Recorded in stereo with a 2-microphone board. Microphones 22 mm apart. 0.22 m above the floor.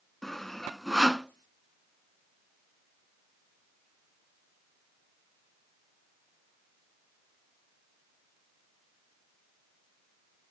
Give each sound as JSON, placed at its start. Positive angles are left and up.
{"t": 0.2, "sound": "sawing", "side_deg": 15, "distance_m": 0.6}